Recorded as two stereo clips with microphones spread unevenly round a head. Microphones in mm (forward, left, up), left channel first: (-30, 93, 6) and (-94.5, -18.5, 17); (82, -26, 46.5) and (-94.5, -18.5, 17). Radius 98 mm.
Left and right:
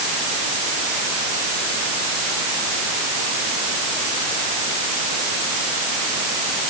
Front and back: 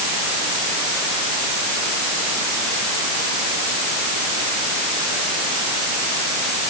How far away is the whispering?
No whispering in this recording.